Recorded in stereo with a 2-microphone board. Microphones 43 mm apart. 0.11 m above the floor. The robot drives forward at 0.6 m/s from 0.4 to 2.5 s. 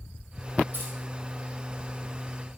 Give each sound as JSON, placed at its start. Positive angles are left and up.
{"t": 0.7, "sound": "keys jangling", "side_deg": -55, "distance_m": 3.5}